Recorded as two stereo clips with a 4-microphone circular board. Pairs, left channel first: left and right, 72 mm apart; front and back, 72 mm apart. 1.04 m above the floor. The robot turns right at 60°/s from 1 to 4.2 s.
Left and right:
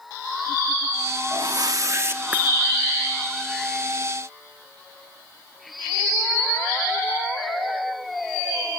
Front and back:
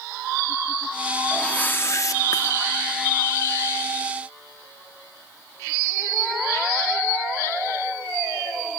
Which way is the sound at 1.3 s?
85° right.